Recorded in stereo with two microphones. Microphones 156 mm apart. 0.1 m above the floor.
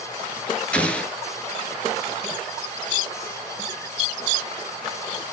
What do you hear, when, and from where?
0.7 s an explosion: 10° left (ahead or behind), 0.5 m